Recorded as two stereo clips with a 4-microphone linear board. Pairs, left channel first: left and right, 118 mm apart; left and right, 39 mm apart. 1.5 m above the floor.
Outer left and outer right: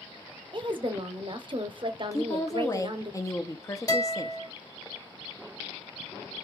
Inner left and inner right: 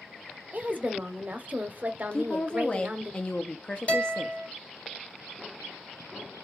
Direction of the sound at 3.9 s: 25° left (ahead or behind).